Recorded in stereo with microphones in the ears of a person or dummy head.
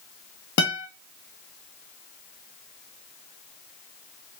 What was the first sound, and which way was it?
A guitar, 65° left (ahead or behind).